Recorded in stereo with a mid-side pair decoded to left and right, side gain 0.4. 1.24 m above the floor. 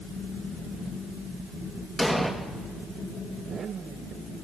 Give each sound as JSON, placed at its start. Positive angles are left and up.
{"t": 2.0, "sound": "an explosion", "azimuth_deg": 5, "distance_m": 1.5}